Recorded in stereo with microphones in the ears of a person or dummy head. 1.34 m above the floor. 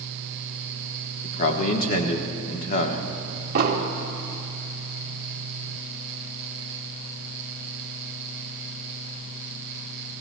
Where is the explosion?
50° right (ahead or behind), 1.1 m.